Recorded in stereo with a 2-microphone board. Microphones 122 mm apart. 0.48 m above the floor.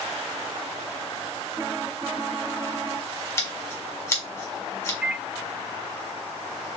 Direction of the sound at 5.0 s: 10° right (ahead or behind).